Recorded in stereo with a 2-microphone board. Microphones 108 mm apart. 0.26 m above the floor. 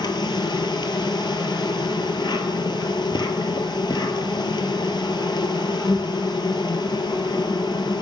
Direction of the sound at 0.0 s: 45° left (ahead or behind).